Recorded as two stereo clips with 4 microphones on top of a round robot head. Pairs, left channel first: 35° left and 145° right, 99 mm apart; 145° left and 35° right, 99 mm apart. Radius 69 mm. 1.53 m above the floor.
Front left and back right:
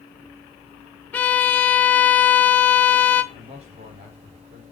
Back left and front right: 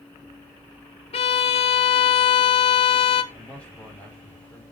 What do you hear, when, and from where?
1.1 s a violin: 110° left, 1.0 m
3.3 s a man speaking: 140° right, 5.5 m